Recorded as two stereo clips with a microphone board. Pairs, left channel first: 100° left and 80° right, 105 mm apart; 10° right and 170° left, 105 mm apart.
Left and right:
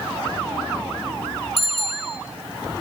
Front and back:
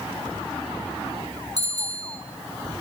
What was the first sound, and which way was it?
A bicycle bell, 115° left.